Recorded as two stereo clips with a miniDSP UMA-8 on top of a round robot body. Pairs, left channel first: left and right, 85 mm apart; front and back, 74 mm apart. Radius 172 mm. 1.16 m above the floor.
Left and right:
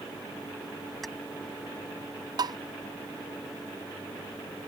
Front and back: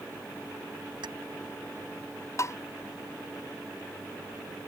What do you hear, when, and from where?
1.0 s keys jangling: straight behind
2.4 s tapping: 50° right